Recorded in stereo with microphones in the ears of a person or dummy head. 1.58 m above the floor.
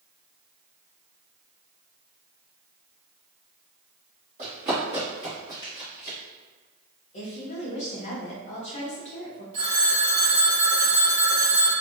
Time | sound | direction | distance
4.4 | running footsteps | 25° right (ahead or behind) | 1.7 m
7.1 | a woman speaking | 35° left (ahead or behind) | 1.1 m
9.5 | a phone ringing | 20° right (ahead or behind) | 1.6 m